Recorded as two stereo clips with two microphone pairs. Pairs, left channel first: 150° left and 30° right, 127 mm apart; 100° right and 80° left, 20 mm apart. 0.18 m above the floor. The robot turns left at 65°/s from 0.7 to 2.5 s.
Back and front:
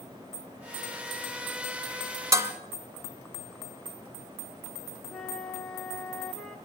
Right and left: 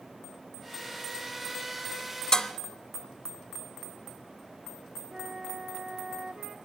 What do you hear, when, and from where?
2.3 s dishes clattering: 80° right, 1.1 m; by 2.5 s 90° right, 1.1 m
5.1 s a flute: 70° left, 1.5 m